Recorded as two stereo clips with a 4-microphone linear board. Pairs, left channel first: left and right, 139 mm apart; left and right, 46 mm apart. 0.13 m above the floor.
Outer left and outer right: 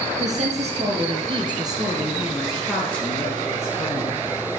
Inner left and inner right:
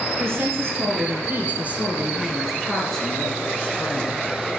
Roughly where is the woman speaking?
Right.